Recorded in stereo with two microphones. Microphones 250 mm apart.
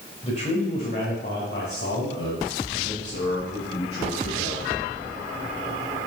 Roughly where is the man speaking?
Left.